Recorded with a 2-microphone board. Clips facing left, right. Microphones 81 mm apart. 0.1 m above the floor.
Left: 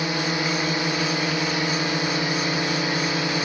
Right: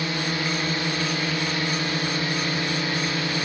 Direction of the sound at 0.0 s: 20° left (ahead or behind).